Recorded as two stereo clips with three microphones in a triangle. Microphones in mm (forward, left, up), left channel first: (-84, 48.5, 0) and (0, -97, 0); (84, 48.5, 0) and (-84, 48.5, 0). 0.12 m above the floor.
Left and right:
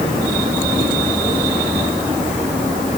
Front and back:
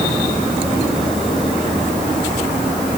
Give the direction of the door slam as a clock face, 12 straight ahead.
No door slam in this recording.